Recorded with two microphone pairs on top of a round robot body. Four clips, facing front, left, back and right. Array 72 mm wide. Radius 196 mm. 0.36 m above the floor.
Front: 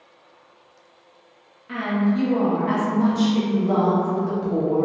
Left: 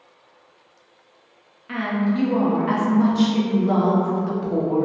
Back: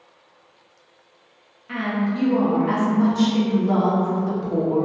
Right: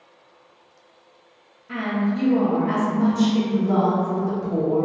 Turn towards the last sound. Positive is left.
turn(degrees=100)